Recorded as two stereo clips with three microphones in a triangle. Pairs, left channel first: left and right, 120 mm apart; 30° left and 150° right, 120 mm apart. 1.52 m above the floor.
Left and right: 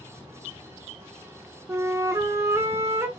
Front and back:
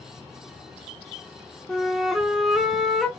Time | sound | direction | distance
1.7 | a flute | 60° right | 0.8 m